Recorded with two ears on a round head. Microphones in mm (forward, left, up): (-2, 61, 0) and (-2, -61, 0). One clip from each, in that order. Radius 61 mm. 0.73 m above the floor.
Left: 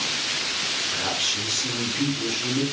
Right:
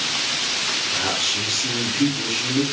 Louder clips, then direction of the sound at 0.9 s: Right 3 dB; centre (ahead or behind).